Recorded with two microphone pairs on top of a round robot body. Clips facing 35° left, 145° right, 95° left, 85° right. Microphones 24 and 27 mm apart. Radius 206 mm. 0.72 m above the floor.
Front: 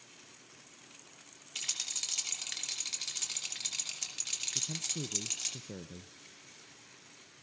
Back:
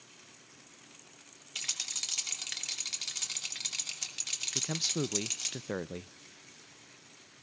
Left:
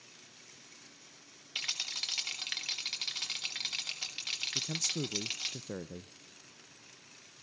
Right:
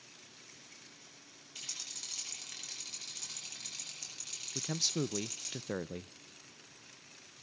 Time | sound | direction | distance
1.6 | a rattle | 130° left | 3.5 m
4.5 | a man speaking | 140° right | 0.5 m